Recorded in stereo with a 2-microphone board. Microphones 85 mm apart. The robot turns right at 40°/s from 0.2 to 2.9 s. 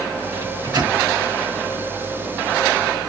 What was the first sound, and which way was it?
A microwave, 50° right (ahead or behind).